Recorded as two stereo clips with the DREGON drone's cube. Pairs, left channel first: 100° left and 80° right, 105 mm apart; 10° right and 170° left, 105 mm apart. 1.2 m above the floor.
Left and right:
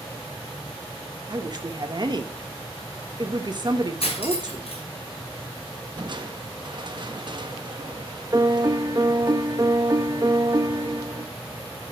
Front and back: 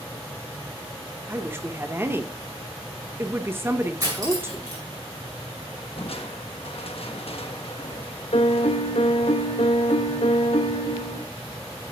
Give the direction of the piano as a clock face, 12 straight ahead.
1 o'clock.